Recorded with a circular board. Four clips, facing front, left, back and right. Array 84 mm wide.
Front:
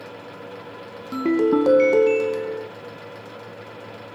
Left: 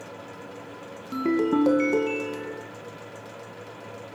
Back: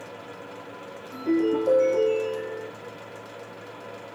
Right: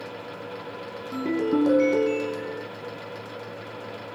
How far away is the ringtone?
About 1.1 m.